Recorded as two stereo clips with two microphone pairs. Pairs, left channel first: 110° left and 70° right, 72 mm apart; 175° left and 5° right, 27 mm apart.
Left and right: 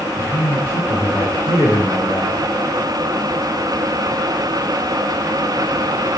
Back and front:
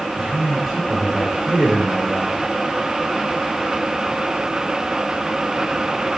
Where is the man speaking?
60° left, 2.5 m; by 2.4 s 90° left, 3 m.